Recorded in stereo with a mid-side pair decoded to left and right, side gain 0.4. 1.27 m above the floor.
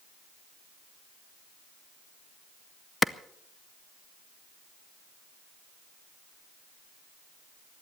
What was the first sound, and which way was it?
A clap, 25° left.